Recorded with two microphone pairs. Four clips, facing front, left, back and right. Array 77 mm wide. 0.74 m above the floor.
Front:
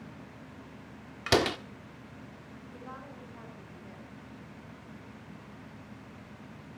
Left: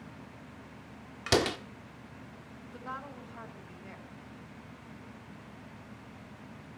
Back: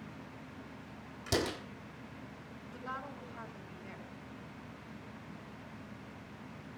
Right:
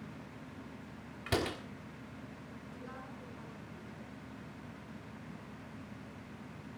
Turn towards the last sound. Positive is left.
turn(degrees=115)